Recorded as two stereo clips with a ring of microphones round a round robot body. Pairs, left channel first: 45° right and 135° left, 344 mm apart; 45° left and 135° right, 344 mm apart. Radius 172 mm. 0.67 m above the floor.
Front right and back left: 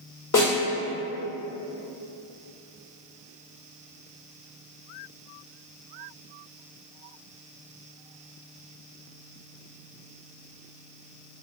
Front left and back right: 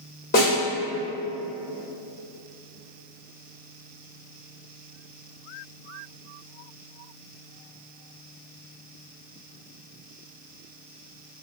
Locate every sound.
0.3 s a snare drum: 10° right, 2.0 m